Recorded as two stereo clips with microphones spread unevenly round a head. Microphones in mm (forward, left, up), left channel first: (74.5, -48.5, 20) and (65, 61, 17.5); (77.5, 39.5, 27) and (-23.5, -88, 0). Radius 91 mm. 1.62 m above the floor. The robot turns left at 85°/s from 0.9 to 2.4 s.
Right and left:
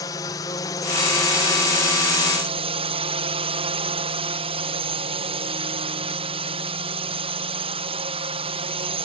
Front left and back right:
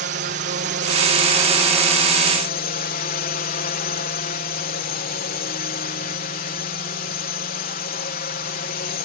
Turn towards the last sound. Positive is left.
turn(degrees=85)